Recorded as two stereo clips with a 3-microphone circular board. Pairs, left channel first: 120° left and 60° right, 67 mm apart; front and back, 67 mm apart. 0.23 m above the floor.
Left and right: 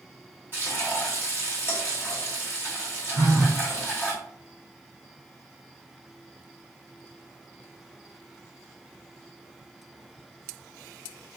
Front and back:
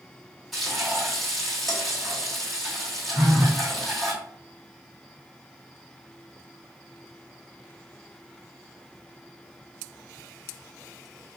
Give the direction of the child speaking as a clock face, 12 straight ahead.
I don't hear a child speaking.